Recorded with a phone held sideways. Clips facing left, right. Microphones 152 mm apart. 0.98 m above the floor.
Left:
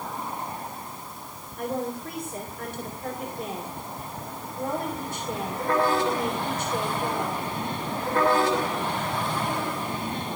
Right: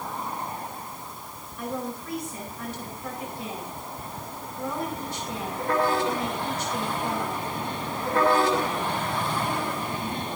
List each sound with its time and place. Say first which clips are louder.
1.6 s a woman speaking: left 3 dB; 55° left (ahead or behind), 4.5 m